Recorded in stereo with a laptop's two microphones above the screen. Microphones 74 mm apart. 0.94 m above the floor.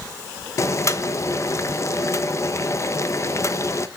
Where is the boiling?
40° left (ahead or behind), 0.9 m.